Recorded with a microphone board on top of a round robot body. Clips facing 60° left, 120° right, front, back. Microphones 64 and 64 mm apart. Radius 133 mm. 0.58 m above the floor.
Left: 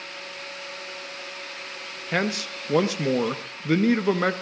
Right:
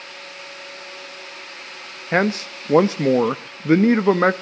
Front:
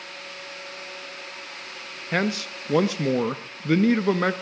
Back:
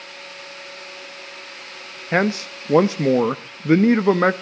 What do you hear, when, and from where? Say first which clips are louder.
2.1 s a man speaking: right 6 dB, back 5 dB; 140° right, 0.7 m